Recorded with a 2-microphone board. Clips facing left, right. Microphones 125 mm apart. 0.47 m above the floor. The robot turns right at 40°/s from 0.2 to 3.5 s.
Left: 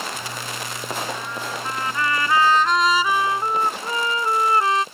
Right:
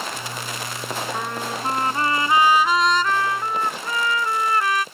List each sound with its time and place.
1.1 s a trumpet: 65° right; by 4.8 s 30° left